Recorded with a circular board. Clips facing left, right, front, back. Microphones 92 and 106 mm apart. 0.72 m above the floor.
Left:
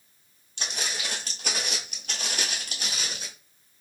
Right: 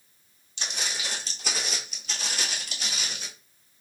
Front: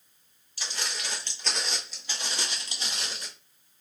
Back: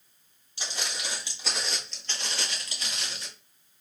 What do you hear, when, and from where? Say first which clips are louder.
0.6 s footsteps: left 1 dB, even; 120° left, 1.4 m; by 3.3 s 45° left, 1.3 m